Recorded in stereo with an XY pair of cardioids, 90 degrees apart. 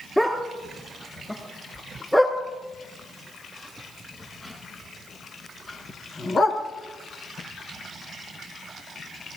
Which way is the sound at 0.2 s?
Straight ahead.